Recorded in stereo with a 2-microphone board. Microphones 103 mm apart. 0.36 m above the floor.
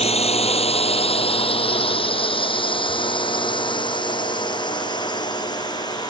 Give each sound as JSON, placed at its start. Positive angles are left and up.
{"t": 0.0, "sound": "a drone", "side_deg": 80}